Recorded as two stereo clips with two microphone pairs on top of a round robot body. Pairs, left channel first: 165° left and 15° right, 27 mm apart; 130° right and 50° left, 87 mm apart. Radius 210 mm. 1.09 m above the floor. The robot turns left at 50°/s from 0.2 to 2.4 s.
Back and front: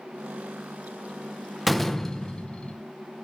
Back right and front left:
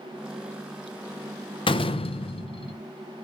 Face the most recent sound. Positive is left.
turn(degrees=-145)